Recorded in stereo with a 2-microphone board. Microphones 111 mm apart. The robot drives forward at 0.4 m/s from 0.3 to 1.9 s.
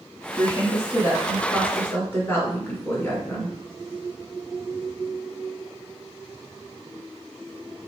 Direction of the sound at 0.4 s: 20° left (ahead or behind).